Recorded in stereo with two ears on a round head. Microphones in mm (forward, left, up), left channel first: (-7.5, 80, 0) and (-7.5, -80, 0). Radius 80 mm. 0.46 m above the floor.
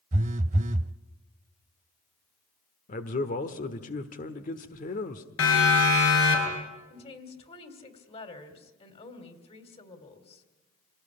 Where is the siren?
80° left, 7 m; by 6.6 s 85° left, 6.5 m.